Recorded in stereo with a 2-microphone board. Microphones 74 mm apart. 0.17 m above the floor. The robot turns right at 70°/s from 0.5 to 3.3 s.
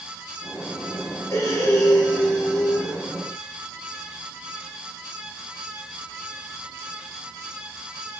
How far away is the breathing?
About 1.1 m.